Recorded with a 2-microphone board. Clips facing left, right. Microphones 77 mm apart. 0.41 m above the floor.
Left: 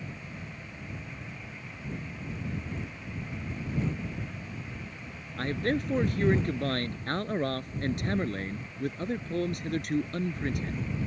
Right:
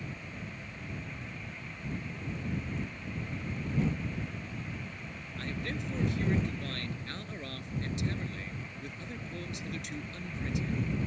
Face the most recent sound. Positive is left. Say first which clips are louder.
# left 9 dB
turn(degrees=50)  # may be behind; listen again after turning